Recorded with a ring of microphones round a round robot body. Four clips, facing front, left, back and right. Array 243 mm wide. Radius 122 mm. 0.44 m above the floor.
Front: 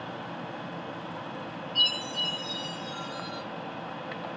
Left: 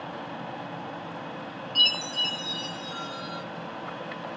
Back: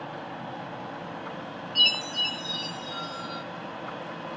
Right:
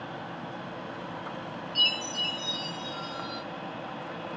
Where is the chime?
165° left, 1.4 m.